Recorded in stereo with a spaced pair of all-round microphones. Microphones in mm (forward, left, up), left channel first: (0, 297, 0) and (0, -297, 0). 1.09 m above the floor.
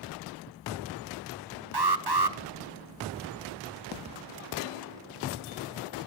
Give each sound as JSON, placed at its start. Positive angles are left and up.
{"t": 1.7, "sound": "an alarm", "side_deg": -40, "distance_m": 1.1}